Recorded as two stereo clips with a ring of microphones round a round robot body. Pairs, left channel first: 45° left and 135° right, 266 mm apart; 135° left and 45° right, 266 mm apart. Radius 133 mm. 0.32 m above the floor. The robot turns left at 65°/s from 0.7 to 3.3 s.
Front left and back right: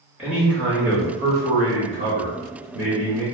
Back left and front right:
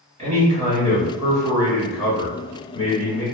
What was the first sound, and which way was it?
A man speaking, 60° right.